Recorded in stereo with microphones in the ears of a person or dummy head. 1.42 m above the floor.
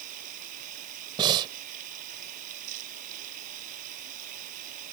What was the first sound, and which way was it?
Running water, 45° right (ahead or behind).